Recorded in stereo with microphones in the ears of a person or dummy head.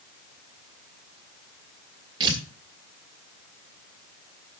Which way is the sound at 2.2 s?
25° right (ahead or behind).